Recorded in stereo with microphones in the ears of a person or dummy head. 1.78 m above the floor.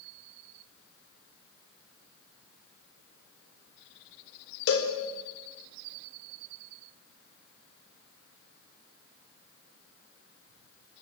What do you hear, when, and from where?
4.7 s a cowbell: 70° left (ahead or behind), 4 m